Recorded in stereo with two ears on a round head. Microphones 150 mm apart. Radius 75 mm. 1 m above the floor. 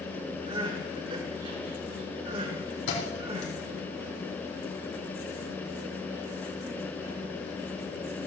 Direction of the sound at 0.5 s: 30° right (ahead or behind).